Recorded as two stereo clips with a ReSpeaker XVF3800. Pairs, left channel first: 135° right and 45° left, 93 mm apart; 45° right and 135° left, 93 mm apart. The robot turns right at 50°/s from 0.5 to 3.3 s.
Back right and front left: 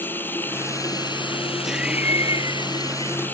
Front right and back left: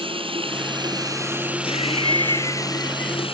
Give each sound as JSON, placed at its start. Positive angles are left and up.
{"t": 0.0, "sound": "running water", "azimuth_deg": 155}
{"t": 1.6, "sound": "laughter", "azimuth_deg": -40}